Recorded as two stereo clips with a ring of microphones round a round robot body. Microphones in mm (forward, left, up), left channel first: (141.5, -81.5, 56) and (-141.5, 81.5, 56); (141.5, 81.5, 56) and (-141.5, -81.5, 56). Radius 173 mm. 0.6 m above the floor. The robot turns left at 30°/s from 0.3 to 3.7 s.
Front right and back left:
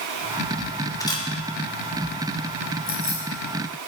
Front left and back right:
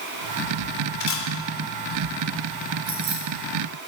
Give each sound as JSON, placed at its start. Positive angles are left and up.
{"t": 1.0, "sound": "a camera shutter", "azimuth_deg": 50, "distance_m": 2.5}
{"t": 2.9, "sound": "keys jangling", "azimuth_deg": -95, "distance_m": 7.5}